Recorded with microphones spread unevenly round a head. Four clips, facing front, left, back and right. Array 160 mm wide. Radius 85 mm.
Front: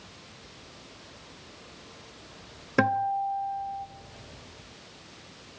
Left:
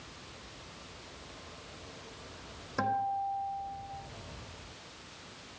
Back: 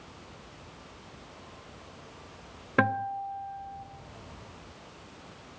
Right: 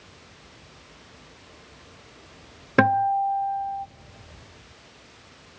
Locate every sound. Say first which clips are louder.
2.8 s a guitar: right 12 dB, front 3 dB; 75° right, 0.6 m